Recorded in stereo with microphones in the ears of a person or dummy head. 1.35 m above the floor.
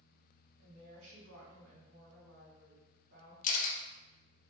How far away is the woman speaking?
About 1.4 m.